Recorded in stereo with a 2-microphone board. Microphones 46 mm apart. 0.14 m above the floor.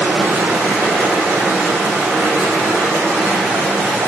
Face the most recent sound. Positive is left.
turn(degrees=-90)